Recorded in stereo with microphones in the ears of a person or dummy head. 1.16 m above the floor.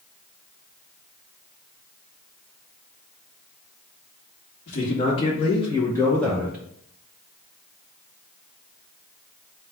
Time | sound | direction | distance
4.7 | a man speaking | 50° left (ahead or behind) | 1.3 m